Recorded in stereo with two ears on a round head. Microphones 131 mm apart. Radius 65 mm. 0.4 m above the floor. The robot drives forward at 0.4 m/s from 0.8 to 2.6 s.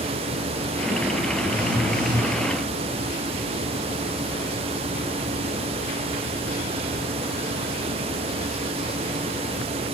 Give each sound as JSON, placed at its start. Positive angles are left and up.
{"t": 1.4, "sound": "a phone buzzing", "side_deg": 40, "distance_m": 1.8}